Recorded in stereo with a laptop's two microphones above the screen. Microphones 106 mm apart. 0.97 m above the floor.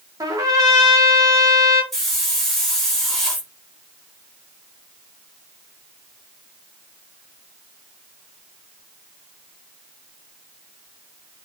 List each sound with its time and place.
0.2 s a trumpet: 35° right (ahead or behind), 2 m
1.9 s a hiss: centre (ahead or behind), 3 m